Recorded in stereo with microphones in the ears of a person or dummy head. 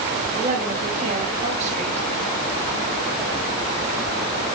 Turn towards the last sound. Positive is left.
turn(degrees=-35)  # may be behind; listen again after turning